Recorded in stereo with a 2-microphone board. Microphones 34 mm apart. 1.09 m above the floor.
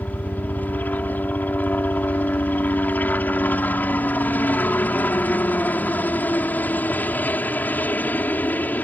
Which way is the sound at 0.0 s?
55° left (ahead or behind).